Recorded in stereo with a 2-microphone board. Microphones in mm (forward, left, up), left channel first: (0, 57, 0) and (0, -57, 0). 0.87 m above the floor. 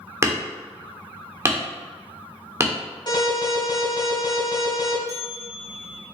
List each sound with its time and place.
0.2 s hammering: 25° right (ahead or behind), 1.1 m
3.1 s an alarm: 40° left (ahead or behind), 3 m
5.1 s a bell: 80° left, 1.2 m